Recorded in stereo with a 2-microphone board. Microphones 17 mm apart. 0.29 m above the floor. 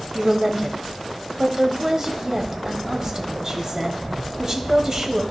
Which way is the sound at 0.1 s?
30° right (ahead or behind).